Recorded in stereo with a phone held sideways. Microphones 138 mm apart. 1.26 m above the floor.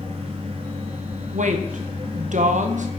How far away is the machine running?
About 1.6 m.